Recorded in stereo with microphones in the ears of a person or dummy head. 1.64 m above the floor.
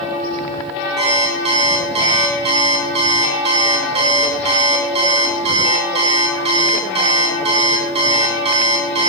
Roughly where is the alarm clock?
Right.